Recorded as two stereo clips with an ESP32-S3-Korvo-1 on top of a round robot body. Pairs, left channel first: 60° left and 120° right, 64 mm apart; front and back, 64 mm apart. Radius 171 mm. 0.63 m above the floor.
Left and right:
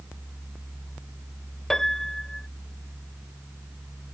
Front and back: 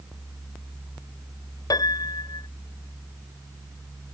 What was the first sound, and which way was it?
A piano, 25° right.